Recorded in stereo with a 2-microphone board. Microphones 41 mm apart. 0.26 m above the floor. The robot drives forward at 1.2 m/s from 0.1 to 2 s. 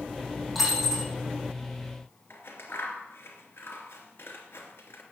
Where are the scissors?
75° left (ahead or behind), 3 m.